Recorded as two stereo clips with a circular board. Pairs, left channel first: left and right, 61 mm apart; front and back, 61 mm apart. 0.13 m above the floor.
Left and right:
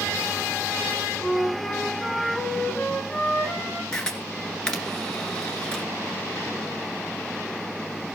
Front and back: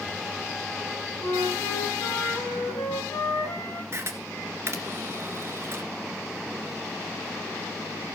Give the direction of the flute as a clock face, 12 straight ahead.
11 o'clock.